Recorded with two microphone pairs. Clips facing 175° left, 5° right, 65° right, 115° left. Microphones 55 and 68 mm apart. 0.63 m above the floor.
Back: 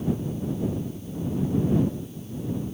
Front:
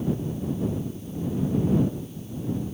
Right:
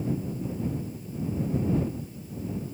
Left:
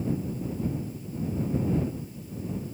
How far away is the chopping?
No chopping in this recording.